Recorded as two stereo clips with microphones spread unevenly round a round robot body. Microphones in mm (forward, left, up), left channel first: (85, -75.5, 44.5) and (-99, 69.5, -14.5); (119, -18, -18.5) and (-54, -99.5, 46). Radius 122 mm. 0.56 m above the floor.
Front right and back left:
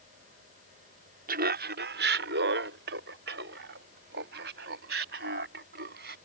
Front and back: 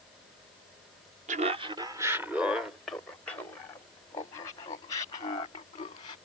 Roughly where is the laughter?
Behind left.